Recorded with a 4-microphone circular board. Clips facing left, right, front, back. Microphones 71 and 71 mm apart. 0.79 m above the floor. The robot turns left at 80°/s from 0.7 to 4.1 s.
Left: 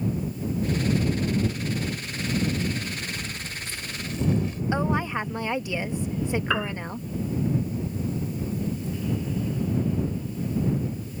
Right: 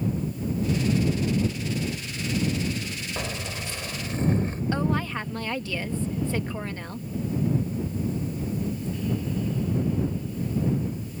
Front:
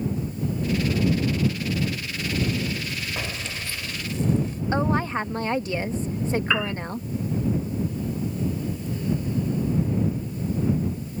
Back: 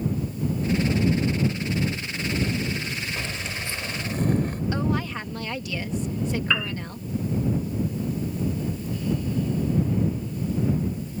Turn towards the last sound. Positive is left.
turn(degrees=75)